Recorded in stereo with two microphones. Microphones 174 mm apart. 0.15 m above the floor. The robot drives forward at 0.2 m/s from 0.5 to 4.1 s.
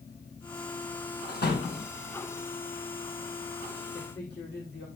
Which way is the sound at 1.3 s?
70° left (ahead or behind).